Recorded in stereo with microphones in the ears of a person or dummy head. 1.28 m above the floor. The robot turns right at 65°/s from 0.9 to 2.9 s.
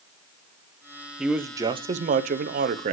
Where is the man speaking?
170° right, 0.6 m; by 2.9 s 60° right, 0.6 m.